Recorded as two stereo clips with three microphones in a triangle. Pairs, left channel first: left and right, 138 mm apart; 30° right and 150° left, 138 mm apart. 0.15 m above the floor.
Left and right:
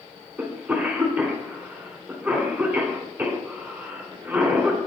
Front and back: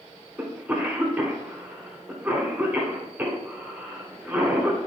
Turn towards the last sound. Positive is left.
turn(degrees=-150)